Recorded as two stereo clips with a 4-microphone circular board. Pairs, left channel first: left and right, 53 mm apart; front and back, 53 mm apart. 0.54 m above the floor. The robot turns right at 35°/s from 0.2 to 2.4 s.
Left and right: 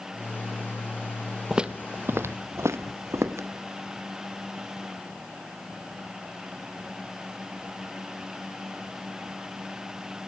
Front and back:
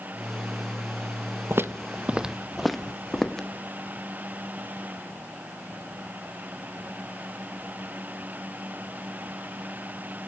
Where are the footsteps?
165° right, 0.9 m; by 3.5 s 80° right, 1.8 m.